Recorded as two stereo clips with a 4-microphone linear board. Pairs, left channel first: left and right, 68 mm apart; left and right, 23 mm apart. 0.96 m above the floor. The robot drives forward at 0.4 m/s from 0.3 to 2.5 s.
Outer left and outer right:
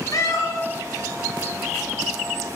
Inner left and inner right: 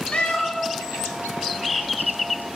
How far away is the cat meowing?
About 3 m.